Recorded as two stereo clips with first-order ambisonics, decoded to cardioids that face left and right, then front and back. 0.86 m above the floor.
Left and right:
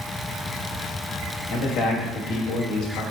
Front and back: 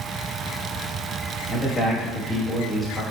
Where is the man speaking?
65° left, 1.1 m.